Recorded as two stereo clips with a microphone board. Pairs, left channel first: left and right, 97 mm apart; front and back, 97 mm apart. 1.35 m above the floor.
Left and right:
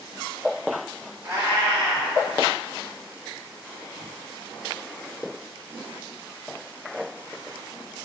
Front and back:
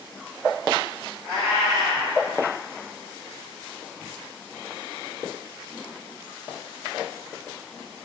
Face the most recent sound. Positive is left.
turn(degrees=-145)